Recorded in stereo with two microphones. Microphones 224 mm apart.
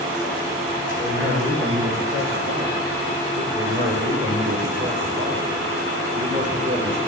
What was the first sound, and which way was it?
A man speaking, 75° right (ahead or behind).